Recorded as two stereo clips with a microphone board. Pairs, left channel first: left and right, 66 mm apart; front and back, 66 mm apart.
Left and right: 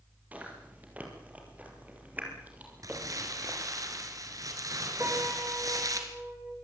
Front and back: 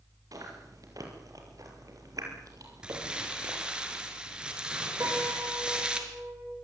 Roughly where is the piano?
Behind right.